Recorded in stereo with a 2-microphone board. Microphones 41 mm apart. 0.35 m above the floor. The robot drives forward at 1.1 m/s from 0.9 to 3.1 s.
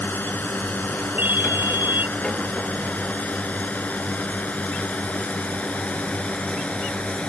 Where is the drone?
50° left (ahead or behind); by 7.3 s 30° left (ahead or behind).